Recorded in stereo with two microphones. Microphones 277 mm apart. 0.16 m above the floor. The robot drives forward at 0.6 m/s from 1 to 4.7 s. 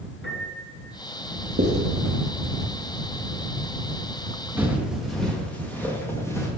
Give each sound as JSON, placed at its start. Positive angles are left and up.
{"t": 0.2, "sound": "a piano", "side_deg": 45, "distance_m": 2.5}
{"t": 1.6, "sound": "writing", "side_deg": -55, "distance_m": 2.5}
{"t": 4.6, "sound": "footsteps", "side_deg": -5, "distance_m": 1.4}